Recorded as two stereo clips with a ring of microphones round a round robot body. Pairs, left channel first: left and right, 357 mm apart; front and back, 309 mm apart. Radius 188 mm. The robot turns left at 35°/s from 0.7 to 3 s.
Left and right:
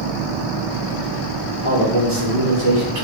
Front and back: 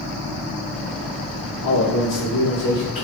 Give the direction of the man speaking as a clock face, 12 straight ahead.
1 o'clock.